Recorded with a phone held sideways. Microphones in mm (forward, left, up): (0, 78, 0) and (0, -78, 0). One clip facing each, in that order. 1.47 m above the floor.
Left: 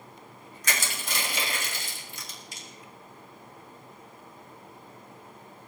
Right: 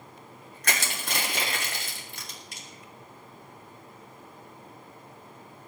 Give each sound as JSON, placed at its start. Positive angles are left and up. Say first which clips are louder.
{"t": 0.6, "sound": "crushing", "louder": "right 1 dB", "side_deg": -60, "distance_m": 3.0}